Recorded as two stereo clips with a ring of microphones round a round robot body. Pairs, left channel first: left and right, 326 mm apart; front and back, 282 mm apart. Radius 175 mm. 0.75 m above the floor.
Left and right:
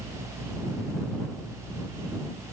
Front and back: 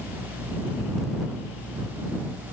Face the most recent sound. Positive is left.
No sound to turn to.